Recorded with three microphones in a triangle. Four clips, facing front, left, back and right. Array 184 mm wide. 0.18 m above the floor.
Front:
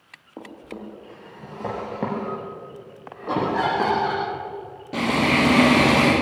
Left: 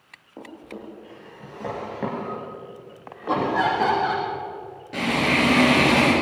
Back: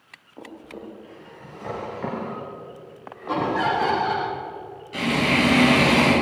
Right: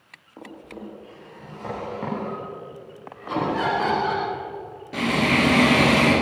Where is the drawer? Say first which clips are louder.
Even, front 2 dB; 20° left, 8 m.